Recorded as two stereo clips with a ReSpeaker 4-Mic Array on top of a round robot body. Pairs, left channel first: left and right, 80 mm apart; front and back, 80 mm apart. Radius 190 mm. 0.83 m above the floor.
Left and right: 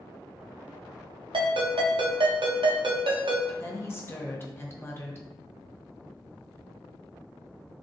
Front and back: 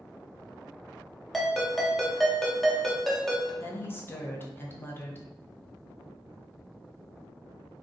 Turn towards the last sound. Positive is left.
turn(degrees=45)